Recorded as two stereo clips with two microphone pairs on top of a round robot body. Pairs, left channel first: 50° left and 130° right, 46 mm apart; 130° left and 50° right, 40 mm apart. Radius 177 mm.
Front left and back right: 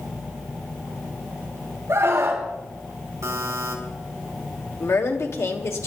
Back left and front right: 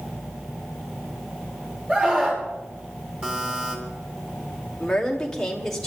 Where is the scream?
105° right, 6 m.